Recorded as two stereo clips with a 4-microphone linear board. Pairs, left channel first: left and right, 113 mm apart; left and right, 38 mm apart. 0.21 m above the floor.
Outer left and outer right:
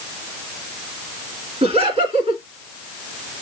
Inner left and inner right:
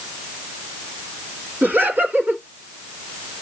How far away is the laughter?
About 2.5 m.